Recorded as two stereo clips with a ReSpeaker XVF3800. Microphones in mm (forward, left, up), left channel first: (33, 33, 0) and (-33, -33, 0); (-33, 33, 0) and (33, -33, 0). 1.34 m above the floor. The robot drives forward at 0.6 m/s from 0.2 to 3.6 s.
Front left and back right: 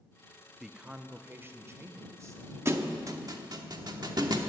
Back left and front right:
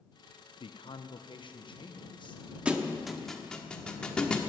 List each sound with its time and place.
0.6 s a man speaking: 140° left, 0.5 m; by 2.5 s 170° left, 1.6 m
2.6 s a thud: 110° right, 0.9 m; by 4.4 s 150° right, 1.1 m